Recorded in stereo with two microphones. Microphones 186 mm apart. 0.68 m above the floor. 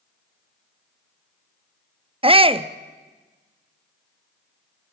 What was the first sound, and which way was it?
A shout, 30° right (ahead or behind).